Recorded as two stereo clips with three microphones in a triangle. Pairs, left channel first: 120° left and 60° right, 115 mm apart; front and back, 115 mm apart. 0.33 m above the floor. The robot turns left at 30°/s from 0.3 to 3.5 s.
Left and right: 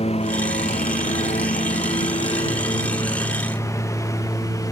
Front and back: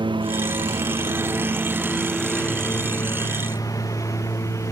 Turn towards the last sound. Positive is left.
turn(degrees=60)